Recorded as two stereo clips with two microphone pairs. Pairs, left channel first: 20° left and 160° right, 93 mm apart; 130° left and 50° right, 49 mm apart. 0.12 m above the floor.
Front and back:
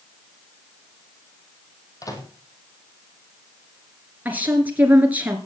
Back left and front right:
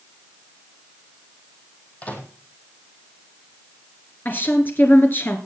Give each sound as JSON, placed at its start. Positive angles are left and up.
{"t": 2.0, "sound": "a microwave", "azimuth_deg": 70, "distance_m": 3.0}
{"t": 4.2, "sound": "a woman speaking", "azimuth_deg": 135, "distance_m": 1.8}